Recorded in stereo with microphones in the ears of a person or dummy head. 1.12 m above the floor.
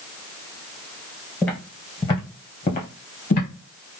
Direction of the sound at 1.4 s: 15° left (ahead or behind).